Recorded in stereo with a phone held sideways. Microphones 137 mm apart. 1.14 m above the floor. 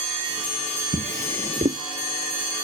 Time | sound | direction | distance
0.9 | a drawer | 70° right (ahead or behind) | ?